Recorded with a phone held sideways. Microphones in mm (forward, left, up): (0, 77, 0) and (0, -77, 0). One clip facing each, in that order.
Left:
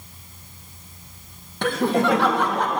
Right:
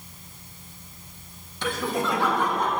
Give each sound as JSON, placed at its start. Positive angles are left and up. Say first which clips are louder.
{"t": 1.6, "sound": "laughter", "louder": "left 7 dB", "side_deg": 60, "distance_m": 1.8}